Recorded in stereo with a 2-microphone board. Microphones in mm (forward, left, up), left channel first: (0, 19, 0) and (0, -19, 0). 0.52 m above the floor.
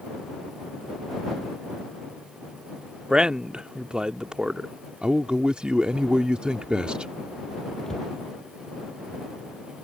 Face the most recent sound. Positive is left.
turn(degrees=15)  # may be behind; listen again after turning